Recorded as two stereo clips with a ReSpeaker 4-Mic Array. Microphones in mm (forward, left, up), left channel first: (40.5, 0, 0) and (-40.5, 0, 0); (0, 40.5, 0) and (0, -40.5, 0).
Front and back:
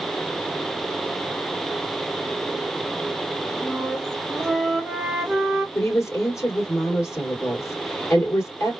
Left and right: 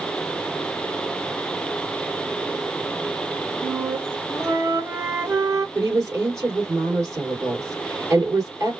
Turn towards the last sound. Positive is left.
turn(degrees=-45)